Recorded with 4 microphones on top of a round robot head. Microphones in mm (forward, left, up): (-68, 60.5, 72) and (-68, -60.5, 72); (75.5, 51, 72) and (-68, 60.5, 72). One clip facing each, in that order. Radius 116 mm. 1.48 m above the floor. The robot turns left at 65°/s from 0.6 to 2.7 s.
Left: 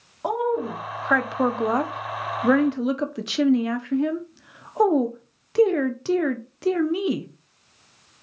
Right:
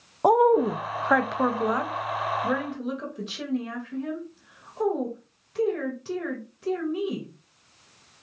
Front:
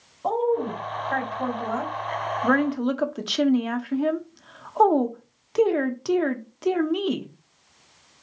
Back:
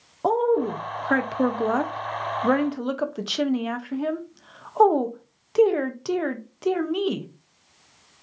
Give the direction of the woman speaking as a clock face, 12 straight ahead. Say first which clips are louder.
Right 6 dB, back 2 dB; 5 o'clock.